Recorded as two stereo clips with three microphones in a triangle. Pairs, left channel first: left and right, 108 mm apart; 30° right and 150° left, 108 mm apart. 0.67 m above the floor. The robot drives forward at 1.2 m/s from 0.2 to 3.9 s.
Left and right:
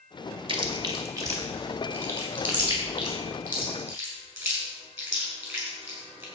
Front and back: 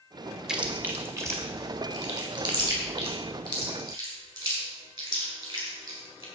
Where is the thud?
No thud in this recording.